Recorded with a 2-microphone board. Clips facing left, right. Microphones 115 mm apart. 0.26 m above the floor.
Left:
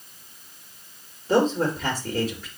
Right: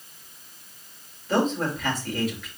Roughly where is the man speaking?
Left.